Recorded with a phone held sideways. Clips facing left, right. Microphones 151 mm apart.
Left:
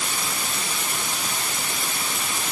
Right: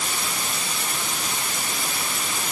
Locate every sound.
Only background noise.